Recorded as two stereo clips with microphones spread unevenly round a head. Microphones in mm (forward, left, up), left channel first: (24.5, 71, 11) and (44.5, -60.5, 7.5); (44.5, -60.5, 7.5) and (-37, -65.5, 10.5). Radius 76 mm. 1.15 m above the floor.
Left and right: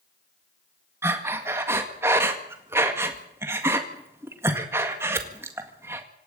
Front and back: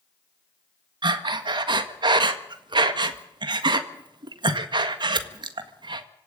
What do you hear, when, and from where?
1.0 s breathing: 155° right, 1.7 m